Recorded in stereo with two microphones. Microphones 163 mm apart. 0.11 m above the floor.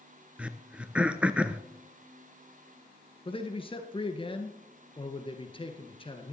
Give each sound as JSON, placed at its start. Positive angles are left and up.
{"t": 0.4, "sound": "throat clearing", "side_deg": -5, "distance_m": 0.7}
{"t": 3.2, "sound": "a man speaking", "side_deg": 35, "distance_m": 1.7}